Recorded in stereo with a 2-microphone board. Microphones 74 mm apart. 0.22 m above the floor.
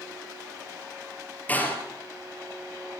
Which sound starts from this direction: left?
A door slam, at 1.5 s.